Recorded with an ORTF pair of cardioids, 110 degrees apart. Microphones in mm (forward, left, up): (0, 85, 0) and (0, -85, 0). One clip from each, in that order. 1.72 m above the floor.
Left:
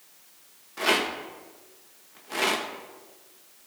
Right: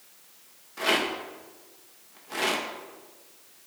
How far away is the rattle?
About 1.9 m.